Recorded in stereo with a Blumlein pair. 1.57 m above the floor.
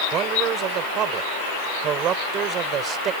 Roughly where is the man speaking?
Ahead right.